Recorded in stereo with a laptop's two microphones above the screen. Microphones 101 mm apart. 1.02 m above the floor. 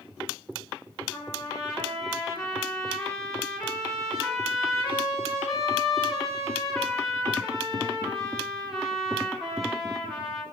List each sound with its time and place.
1.1 s a trumpet: centre (ahead or behind), 1.8 m